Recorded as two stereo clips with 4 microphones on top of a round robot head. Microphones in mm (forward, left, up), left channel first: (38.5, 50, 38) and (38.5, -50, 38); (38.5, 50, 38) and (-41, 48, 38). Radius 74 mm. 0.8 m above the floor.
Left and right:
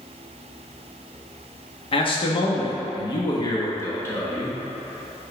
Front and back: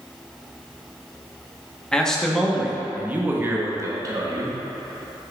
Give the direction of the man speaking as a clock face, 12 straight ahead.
9 o'clock.